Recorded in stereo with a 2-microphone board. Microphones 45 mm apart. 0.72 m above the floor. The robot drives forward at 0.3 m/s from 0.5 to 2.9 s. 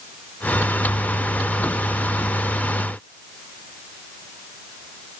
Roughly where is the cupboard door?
No cupboard door in this recording.